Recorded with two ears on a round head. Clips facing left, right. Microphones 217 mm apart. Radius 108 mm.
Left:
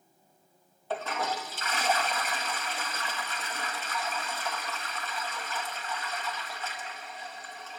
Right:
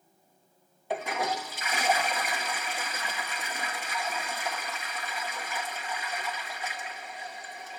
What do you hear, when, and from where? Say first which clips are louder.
0.9 s a toilet flushing: right 2 dB; 10° right (ahead or behind), 1.0 m